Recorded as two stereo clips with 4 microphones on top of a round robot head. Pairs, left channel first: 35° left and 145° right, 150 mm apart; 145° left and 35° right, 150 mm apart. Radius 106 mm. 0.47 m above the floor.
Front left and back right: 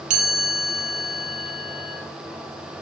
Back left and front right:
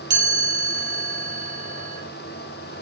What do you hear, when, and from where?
0.1 s a chime: 105° right, 4.5 m